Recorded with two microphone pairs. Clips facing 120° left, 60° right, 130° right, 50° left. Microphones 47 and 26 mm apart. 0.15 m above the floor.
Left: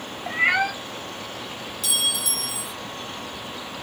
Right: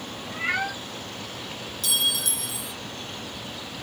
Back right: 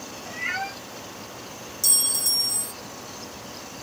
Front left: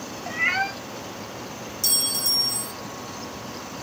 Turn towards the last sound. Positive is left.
turn(degrees=30)